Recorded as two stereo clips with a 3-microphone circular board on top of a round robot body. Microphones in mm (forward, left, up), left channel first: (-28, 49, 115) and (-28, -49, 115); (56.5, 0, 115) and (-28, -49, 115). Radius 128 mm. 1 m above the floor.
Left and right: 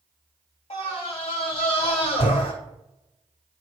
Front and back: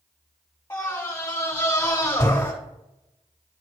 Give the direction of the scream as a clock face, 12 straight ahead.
9 o'clock.